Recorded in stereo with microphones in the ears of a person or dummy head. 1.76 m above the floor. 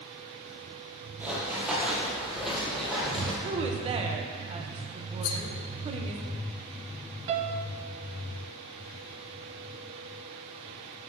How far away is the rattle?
About 0.9 m.